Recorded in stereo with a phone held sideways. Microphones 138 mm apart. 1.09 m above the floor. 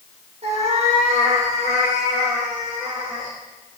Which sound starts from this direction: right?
A cat meowing, at 0.4 s.